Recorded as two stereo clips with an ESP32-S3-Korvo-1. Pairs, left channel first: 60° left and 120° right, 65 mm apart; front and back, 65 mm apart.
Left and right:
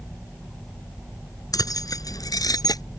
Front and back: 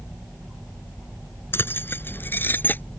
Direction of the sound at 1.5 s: 50° left.